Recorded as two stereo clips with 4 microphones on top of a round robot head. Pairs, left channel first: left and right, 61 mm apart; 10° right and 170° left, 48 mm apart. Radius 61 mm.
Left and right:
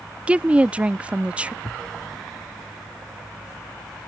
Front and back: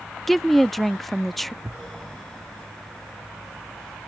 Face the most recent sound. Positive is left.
turn(degrees=110)